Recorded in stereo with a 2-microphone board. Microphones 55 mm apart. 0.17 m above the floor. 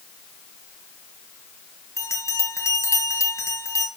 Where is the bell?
65° left (ahead or behind), 4 m.